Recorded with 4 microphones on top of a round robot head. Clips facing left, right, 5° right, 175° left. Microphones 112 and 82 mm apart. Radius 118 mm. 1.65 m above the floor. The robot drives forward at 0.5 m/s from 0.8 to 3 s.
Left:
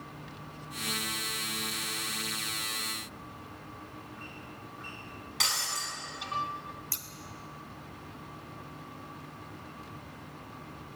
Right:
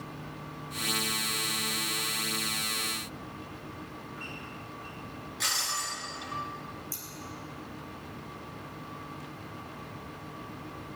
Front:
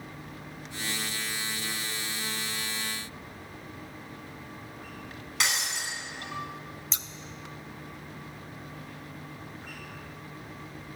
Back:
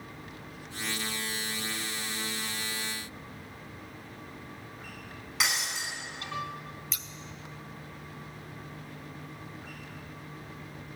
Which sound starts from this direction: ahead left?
Scissors, at 6.9 s.